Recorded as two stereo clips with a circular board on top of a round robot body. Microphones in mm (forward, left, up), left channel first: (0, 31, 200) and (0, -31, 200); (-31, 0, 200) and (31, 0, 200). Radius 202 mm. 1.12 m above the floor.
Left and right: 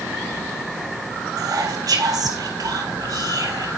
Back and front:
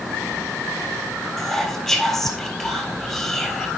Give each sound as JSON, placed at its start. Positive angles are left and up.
{"t": 1.4, "sound": "whispering", "azimuth_deg": -95, "distance_m": 3.5}